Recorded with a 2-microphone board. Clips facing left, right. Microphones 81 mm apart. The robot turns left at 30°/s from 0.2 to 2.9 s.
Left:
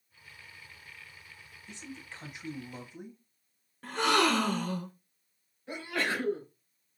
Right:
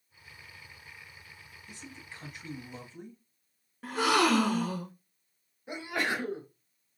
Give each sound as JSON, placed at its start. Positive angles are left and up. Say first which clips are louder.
{"t": 1.7, "sound": "a man speaking", "louder": "left 3 dB", "side_deg": 25, "distance_m": 1.1}
{"t": 3.8, "sound": "a gasp", "louder": "right 1 dB", "side_deg": -5, "distance_m": 0.8}
{"t": 5.7, "sound": "a sneeze", "louder": "right 1 dB", "side_deg": -15, "distance_m": 1.3}